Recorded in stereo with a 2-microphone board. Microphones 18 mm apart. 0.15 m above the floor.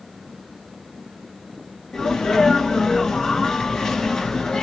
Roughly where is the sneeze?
Left.